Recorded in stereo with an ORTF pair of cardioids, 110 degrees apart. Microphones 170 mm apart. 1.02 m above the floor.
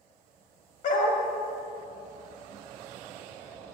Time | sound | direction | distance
0.8 | a dog barking | 55° left | 2.5 m